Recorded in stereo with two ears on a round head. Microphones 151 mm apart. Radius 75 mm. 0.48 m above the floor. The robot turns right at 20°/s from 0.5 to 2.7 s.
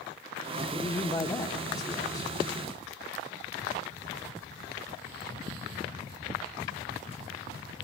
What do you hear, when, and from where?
0.7 s a man speaking: 15° left (ahead or behind), 0.7 m; by 2.5 s 25° left (ahead or behind), 0.7 m